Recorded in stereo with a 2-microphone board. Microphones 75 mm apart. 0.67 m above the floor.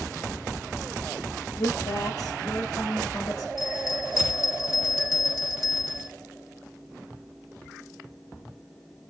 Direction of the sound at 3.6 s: 45° left (ahead or behind).